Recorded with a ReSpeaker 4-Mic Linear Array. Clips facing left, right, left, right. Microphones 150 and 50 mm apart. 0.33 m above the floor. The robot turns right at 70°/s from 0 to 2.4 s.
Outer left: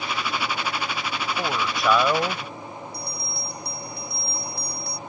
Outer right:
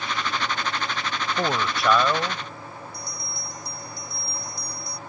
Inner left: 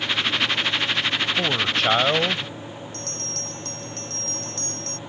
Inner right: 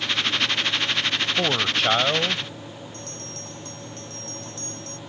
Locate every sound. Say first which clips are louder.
1.4 s a man speaking: outer right 2 dB, inner right 1 dB; 30° right; by 2.5 s 40° left
2.9 s a bell: outer left 3 dB, inner left 3 dB; 70° left (ahead or behind)